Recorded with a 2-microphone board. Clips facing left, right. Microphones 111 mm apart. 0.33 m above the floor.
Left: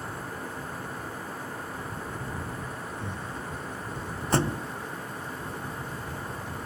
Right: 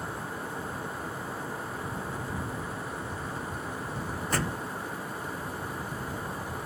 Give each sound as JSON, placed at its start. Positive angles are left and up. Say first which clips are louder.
{"t": 3.0, "sound": "breathing", "louder": "even", "side_deg": 70}
{"t": 4.3, "sound": "a thud", "louder": "left 6 dB", "side_deg": 30}